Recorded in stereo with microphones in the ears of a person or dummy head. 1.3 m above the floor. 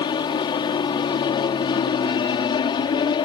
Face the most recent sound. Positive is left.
turn(degrees=25)  # may be behind; listen again after turning